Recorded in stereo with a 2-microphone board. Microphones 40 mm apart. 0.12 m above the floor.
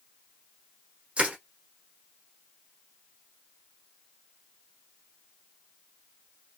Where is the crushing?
30° right (ahead or behind), 1.2 m.